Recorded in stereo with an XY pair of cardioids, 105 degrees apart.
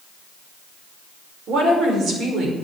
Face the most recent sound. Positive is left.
turn(degrees=-65)